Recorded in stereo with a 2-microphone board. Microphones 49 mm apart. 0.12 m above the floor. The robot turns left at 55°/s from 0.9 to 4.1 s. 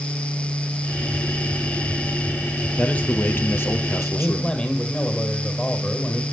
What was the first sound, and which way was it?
A man speaking, 155° left.